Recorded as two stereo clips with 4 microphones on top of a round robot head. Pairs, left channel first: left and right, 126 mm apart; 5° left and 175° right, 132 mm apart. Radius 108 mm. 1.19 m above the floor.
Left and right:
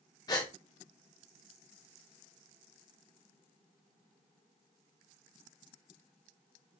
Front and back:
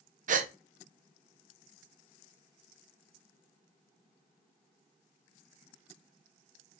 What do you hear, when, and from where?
0.3 s a gasp: 160° left, 0.6 m